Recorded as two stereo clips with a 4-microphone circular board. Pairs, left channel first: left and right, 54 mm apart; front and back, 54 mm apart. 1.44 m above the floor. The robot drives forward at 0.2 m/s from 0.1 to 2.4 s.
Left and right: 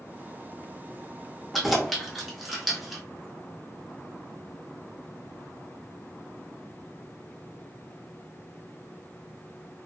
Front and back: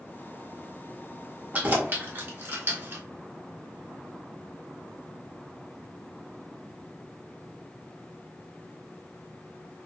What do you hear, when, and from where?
1.5 s keys jangling: straight behind, 0.7 m